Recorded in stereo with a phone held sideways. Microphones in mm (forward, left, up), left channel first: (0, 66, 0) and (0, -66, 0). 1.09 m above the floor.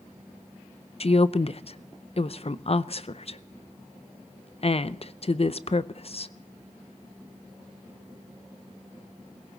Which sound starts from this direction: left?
A woman speaking, at 1.0 s.